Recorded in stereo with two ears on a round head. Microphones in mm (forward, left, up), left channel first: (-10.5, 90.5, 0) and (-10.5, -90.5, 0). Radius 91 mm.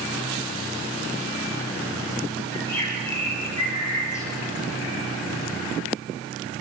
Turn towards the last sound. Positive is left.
turn(degrees=15)  # may be behind; listen again after turning